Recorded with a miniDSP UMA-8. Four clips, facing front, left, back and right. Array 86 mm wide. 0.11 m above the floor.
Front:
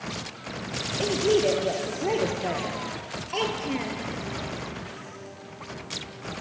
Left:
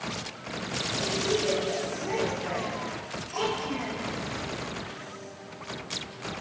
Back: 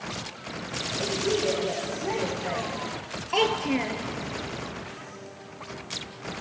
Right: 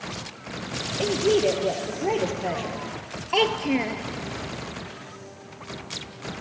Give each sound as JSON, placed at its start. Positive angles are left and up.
{"t": 1.0, "sound": "a woman speaking", "azimuth_deg": -60, "distance_m": 2.5}
{"t": 3.3, "sound": "a child speaking", "azimuth_deg": -105, "distance_m": 1.2}